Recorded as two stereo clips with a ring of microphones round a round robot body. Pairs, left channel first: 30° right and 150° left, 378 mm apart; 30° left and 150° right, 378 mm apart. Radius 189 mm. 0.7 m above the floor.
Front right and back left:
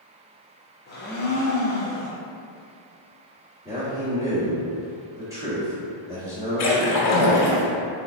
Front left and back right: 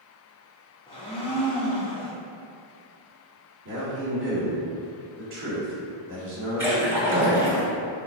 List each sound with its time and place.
0.9 s a blender: 25° right, 0.9 m
3.6 s a man speaking: 130° right, 1.6 m
6.6 s a splash: 65° right, 0.9 m